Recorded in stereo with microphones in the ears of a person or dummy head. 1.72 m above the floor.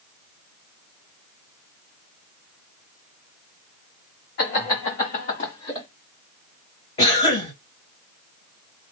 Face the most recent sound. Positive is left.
turn(degrees=30)  # may be behind; listen again after turning